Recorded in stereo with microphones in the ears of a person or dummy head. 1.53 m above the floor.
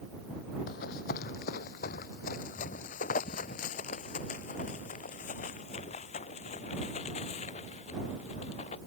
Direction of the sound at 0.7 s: 60° left (ahead or behind).